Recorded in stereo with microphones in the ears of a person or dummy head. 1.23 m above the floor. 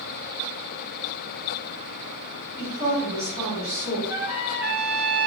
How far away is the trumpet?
About 1.4 m.